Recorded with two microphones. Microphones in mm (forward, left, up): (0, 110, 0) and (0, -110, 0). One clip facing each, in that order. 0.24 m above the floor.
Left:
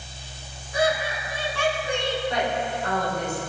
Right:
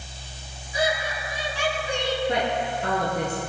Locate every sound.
0.7 s laughter: 55° left (ahead or behind), 3 m
2.3 s a woman speaking: 65° right (ahead or behind), 3.5 m